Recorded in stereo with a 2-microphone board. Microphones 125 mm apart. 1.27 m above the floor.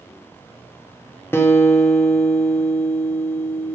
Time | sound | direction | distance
1.3 | a guitar | 20° left (ahead or behind) | 1.2 m